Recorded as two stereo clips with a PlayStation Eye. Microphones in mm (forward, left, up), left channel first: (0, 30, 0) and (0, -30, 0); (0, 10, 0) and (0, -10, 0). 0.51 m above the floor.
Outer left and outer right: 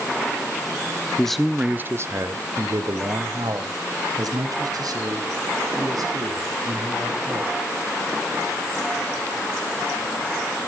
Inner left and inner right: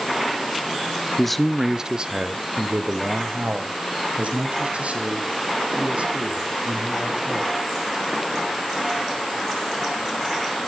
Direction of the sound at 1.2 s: 15° left (ahead or behind).